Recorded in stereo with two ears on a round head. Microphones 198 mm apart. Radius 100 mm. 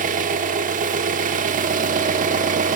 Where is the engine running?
35° right (ahead or behind), 1.3 m.